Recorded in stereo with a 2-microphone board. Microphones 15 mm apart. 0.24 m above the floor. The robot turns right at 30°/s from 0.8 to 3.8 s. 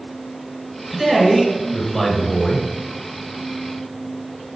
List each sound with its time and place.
0.9 s a man speaking: 25° right, 2.5 m; by 2.7 s 25° left, 2.5 m